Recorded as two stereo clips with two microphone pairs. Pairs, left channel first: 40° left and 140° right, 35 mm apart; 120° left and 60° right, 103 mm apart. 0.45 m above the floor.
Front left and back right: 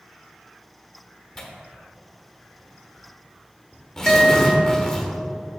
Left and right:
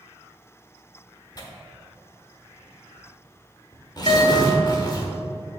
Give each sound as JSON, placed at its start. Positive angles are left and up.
{"t": 1.4, "sound": "tearing paper", "azimuth_deg": 115, "distance_m": 1.2}
{"t": 4.1, "sound": "a guitar", "azimuth_deg": 140, "distance_m": 1.4}